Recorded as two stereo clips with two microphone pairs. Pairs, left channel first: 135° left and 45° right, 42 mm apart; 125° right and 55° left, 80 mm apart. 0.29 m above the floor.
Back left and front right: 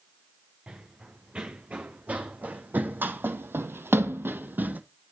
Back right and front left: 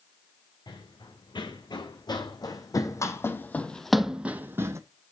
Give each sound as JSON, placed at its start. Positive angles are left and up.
{"t": 0.7, "sound": "running footsteps", "azimuth_deg": -110, "distance_m": 2.0}